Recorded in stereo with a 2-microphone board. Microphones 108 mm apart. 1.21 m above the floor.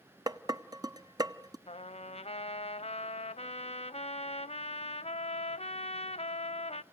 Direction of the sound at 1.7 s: 65° left (ahead or behind).